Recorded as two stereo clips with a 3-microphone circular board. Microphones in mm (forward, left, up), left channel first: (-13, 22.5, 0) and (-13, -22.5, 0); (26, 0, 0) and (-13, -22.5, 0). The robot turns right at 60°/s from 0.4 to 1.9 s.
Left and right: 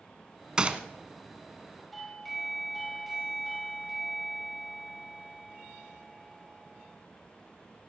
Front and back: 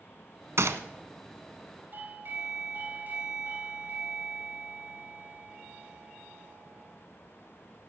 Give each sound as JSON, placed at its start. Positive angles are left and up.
{"t": 0.6, "sound": "a gunshot", "azimuth_deg": -165, "distance_m": 1.0}
{"t": 1.9, "sound": "a doorbell", "azimuth_deg": 175, "distance_m": 3.5}